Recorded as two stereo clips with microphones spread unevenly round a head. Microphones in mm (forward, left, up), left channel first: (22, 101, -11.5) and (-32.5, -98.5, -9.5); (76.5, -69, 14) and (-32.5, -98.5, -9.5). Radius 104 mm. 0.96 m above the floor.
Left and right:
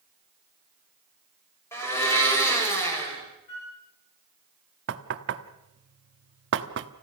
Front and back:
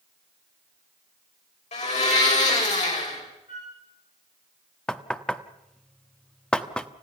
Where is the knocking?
70° right, 1.2 m.